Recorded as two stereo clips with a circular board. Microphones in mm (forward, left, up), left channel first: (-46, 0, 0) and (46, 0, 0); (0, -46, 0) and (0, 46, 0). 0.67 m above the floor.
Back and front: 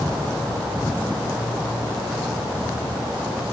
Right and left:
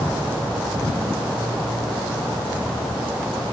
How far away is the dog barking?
I don't hear a dog barking.